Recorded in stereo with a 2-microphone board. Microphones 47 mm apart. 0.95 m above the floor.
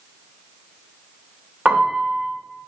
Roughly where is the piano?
Right.